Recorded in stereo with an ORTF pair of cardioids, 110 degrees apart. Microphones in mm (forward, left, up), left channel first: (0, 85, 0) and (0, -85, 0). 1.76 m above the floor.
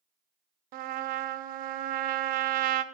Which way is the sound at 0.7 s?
65° right.